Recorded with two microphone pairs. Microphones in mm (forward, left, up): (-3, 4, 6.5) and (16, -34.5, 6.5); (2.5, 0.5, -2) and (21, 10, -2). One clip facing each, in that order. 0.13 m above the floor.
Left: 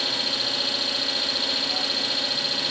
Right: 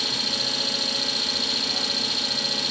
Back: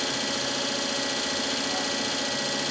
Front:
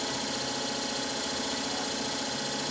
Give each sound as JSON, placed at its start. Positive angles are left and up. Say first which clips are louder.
{"t": 0.0, "sound": "an engine running", "louder": "left 1 dB, back 4 dB", "azimuth_deg": -170, "distance_m": 0.8}